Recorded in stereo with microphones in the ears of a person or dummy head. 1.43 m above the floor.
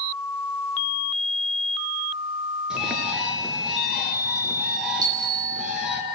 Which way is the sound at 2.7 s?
5° right (ahead or behind).